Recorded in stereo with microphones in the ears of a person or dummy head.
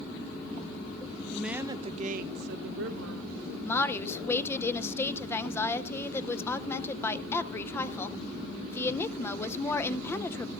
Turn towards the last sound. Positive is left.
turn(degrees=15)  # may be behind; listen again after turning